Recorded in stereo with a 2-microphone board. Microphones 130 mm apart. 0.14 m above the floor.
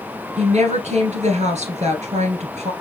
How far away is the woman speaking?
About 2.0 m.